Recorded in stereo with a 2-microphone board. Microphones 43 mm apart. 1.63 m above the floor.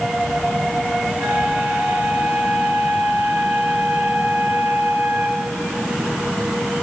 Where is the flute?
80° right, 7.5 m.